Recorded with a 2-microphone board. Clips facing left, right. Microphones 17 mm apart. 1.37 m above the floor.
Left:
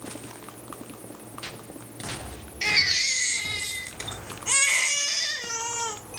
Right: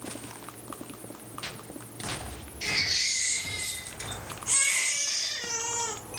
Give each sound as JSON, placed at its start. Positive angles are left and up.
{"t": 2.6, "sound": "a baby crying", "side_deg": 60, "distance_m": 1.1}